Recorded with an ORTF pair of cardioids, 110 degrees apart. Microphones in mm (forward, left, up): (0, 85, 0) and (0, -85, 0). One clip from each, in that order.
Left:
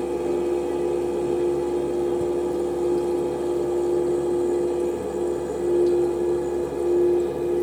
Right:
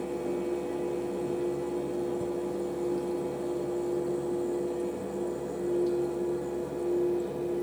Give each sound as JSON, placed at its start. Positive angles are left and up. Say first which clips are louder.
{"t": 0.0, "sound": "a fan", "louder": "left 8 dB", "azimuth_deg": 30, "distance_m": 0.8}